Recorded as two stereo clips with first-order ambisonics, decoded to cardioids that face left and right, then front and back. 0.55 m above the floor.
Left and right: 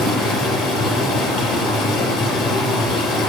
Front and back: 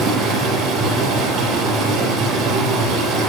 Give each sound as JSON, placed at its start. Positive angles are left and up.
{"t": 0.0, "sound": "running water", "azimuth_deg": 130, "distance_m": 5.0}